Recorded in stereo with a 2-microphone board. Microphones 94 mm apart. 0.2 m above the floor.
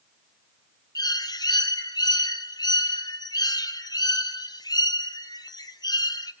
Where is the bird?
45° left (ahead or behind), 0.9 m.